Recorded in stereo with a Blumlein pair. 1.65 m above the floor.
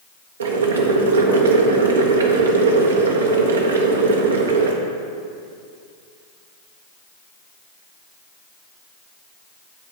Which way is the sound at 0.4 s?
65° right.